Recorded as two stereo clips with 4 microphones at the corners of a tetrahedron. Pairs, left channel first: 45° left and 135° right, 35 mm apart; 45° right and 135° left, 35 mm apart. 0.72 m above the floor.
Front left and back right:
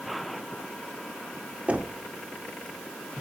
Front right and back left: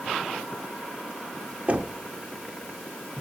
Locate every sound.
1.7 s knocking: 175° left, 1.8 m